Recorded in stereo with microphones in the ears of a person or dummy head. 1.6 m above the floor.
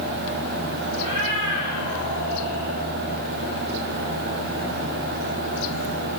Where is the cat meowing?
45° right (ahead or behind), 4 m.